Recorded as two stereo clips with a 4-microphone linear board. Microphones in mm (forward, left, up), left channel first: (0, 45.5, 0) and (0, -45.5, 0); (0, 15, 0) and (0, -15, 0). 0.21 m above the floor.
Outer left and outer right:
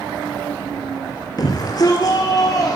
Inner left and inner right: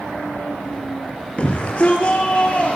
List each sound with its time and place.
1.4 s a shout: 45° left (ahead or behind), 3.5 m